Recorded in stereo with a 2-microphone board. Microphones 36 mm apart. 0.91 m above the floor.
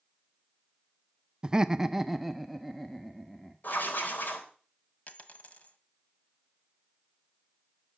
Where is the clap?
I don't hear a clap.